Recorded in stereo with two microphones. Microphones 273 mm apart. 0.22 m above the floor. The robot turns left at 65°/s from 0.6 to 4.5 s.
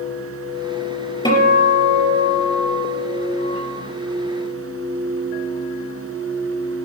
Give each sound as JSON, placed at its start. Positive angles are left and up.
{"t": 1.2, "sound": "a guitar", "azimuth_deg": 15, "distance_m": 4.5}